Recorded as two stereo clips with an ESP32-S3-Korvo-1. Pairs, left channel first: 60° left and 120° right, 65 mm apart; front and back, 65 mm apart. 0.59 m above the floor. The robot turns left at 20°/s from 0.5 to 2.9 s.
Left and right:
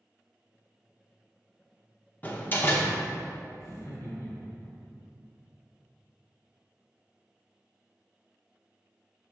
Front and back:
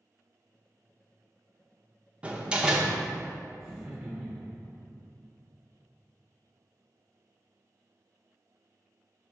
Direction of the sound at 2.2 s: 115° left.